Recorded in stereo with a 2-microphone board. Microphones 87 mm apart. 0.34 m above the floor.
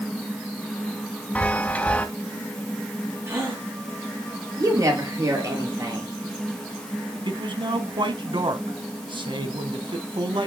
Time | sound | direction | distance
1.4 | a chime | 15° left (ahead or behind) | 1.1 m
3.3 | a gasp | 30° right (ahead or behind) | 7.5 m
4.6 | a woman speaking | 40° right (ahead or behind) | 7 m
7.2 | a man speaking | 70° right (ahead or behind) | 2.5 m